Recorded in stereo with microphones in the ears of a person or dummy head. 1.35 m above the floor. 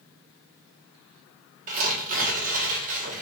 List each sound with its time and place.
1.7 s tearing paper: 45° right (ahead or behind), 1.4 m